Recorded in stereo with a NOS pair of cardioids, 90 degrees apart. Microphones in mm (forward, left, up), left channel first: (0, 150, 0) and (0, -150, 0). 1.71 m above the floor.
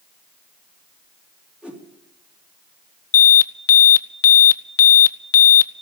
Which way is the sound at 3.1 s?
55° left.